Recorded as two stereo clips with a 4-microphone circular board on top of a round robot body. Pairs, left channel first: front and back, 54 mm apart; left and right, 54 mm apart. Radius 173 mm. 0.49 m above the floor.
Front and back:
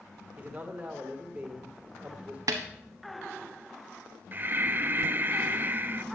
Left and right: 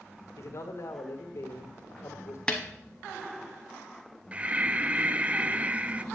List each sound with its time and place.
0.4 s a man speaking: 115° left, 1.9 m
2.5 s a snare drum: 165° left, 0.6 m
4.3 s breathing: 145° right, 0.6 m